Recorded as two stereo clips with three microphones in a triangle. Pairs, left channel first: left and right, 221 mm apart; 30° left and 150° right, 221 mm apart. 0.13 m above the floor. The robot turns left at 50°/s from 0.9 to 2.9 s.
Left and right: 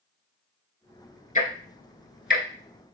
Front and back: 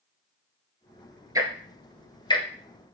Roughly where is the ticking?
Behind left.